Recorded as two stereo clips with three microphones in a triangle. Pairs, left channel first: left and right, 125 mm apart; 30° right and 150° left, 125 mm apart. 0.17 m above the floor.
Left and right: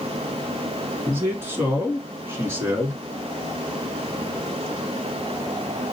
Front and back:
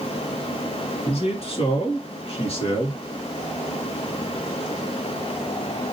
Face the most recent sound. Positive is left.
turn(degrees=-25)